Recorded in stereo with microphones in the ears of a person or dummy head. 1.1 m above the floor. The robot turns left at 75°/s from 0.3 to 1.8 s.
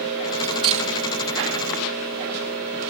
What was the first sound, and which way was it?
Cutlery clinking, 10° right (ahead or behind).